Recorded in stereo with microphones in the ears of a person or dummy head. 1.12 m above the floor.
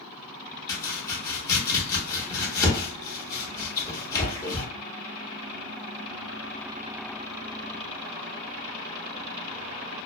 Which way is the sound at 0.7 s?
20° left (ahead or behind).